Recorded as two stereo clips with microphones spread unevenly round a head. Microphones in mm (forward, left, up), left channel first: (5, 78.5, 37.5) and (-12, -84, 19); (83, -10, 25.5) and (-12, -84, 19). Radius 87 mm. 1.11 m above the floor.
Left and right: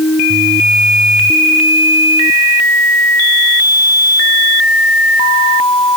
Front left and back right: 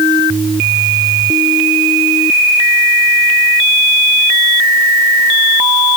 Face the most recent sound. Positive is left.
No sound to turn to.